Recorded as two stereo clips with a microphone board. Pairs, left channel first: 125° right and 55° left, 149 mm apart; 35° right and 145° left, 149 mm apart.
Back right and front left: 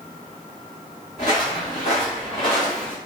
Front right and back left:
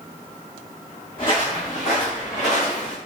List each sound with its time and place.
1.2 s footsteps: 90° right, 1.8 m; by 3.0 s 65° right, 2.5 m